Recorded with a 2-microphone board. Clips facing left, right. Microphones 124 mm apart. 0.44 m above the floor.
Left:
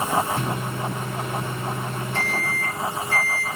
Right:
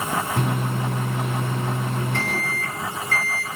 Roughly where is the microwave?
Right.